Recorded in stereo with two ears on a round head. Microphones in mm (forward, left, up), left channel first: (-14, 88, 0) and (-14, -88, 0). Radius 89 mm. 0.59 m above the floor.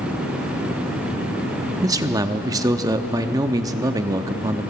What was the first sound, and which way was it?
A man speaking, 20° right (ahead or behind).